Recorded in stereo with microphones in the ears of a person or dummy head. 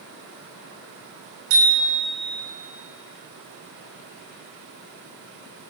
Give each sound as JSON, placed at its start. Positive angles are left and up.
{"t": 1.5, "sound": "a bicycle bell", "side_deg": -85, "distance_m": 5.0}